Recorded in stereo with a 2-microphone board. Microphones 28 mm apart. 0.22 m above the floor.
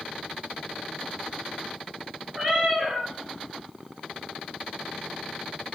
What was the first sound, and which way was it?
A cat meowing, 15° right (ahead or behind).